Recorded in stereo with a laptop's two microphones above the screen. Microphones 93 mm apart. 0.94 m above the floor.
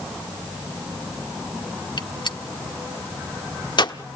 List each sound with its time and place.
2.0 s a gunshot: 50° left (ahead or behind), 1.0 m